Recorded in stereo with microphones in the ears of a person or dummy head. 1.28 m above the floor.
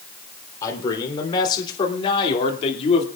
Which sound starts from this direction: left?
A man speaking, at 0.6 s.